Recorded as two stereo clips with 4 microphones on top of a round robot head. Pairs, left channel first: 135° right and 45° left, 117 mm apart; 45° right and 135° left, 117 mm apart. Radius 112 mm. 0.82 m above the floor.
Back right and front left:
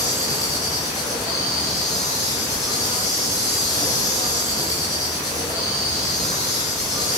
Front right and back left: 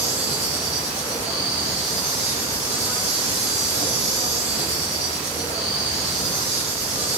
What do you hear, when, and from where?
0.0 s an insect: 170° left, 1.6 m